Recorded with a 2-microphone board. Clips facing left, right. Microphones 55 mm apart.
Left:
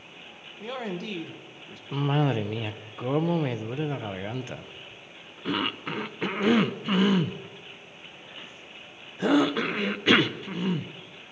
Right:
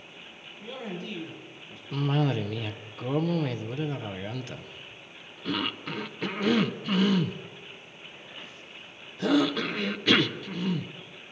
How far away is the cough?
About 0.5 m.